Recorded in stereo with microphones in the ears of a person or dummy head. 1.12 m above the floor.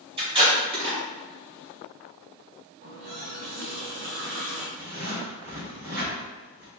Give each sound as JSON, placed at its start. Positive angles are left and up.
{"t": 0.2, "sound": "tape being pulled", "side_deg": -30, "distance_m": 0.9}
{"t": 2.8, "sound": "a running tap", "side_deg": -55, "distance_m": 1.4}
{"t": 4.8, "sound": "a zipper", "side_deg": -70, "distance_m": 2.0}